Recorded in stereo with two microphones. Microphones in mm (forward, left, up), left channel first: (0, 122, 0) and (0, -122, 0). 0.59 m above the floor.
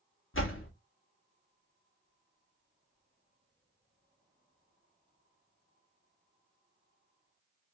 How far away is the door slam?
About 0.8 m.